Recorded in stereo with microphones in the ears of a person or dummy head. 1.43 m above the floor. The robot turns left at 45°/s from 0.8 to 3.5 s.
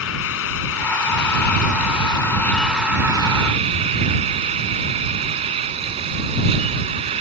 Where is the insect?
90° left; by 7.2 s 30° right.